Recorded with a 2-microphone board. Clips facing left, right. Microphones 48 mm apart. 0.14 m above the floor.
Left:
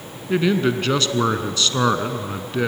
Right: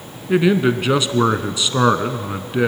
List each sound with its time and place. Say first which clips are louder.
0.3 s a man speaking: right 3 dB; 15° right (ahead or behind), 1.1 m